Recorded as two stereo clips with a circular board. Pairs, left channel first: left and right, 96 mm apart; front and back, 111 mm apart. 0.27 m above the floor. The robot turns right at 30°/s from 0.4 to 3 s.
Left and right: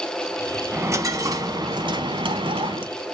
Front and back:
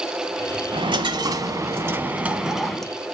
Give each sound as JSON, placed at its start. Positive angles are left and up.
{"t": 0.7, "sound": "a dropped coin", "azimuth_deg": -150, "distance_m": 1.1}